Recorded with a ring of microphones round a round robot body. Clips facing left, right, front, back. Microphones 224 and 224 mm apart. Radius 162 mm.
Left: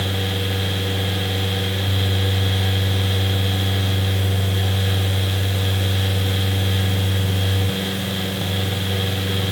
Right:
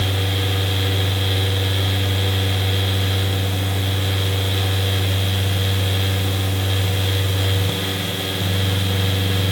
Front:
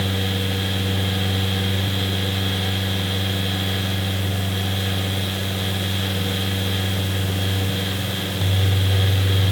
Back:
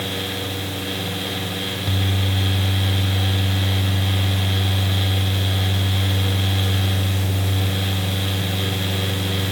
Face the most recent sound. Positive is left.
No sound to turn to.